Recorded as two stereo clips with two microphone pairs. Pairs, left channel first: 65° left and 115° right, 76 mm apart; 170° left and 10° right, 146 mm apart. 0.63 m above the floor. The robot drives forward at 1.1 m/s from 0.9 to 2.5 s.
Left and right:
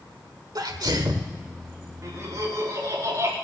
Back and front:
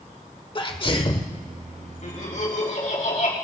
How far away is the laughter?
About 5 m.